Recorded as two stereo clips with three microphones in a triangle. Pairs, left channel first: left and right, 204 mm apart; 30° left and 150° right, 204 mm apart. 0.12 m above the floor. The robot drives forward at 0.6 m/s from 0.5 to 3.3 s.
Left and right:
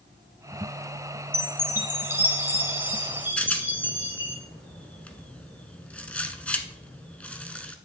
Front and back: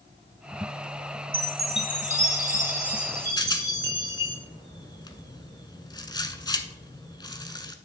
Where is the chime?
155° right, 1.9 m; by 4.4 s 170° right, 2.5 m.